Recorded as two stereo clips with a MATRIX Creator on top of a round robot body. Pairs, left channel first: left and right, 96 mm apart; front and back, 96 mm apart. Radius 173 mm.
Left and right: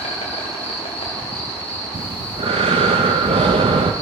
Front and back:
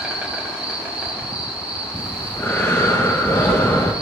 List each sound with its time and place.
0.0 s an insect: 100° left, 0.7 m
1.9 s breathing: 70° right, 0.5 m